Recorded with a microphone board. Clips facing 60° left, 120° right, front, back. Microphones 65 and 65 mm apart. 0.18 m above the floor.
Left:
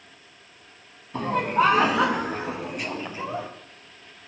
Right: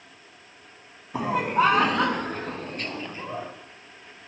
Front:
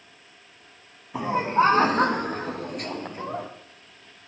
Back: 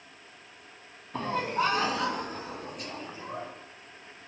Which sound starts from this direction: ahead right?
Laughter, at 1.1 s.